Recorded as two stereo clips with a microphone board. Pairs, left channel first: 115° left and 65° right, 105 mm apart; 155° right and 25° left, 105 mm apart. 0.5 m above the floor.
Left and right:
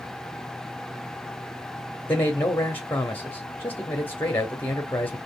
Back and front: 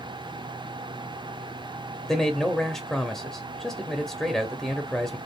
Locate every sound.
2.1 s a man speaking: 125° left, 0.8 m